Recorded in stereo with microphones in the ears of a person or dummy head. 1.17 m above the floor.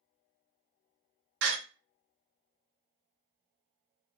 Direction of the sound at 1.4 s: 60° right (ahead or behind).